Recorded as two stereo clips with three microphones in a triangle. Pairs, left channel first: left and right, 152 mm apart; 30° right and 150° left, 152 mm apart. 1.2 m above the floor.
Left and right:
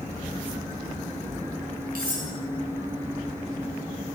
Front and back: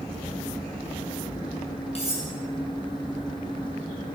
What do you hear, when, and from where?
1.9 s cutlery clinking: 75° right, 7.5 m